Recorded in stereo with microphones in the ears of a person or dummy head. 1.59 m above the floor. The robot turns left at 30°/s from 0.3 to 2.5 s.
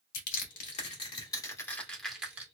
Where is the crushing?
55° left (ahead or behind), 1.3 m; by 2.5 s 10° right (ahead or behind), 1.3 m.